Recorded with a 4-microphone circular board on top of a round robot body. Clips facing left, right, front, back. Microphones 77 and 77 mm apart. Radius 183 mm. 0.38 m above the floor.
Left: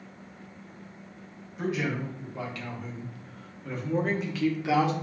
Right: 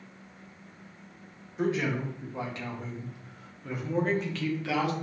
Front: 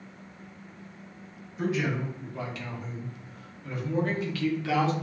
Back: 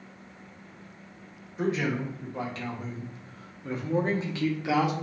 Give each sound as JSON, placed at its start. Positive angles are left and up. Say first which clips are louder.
{"t": 1.6, "sound": "a man speaking", "louder": "right 1 dB, back 1 dB", "azimuth_deg": -135, "distance_m": 1.8}